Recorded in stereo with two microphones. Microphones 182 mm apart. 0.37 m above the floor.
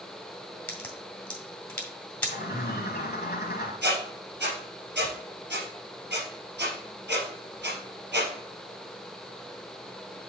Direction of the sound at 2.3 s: 60° left (ahead or behind).